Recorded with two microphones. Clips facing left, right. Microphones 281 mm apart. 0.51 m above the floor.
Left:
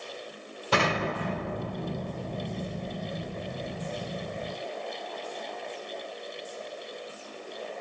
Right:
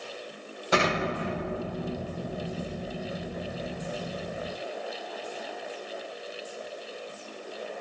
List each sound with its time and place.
0.7 s an explosion: 35° left (ahead or behind), 1.9 m